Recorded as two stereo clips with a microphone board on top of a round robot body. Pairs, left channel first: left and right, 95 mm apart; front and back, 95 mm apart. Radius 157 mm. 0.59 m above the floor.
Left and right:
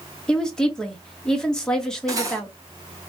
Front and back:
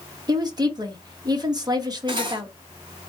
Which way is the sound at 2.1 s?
145° right.